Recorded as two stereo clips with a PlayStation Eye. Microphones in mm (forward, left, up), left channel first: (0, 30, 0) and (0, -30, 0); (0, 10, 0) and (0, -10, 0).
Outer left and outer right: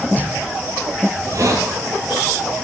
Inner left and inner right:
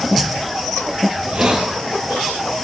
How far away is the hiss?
About 1.3 m.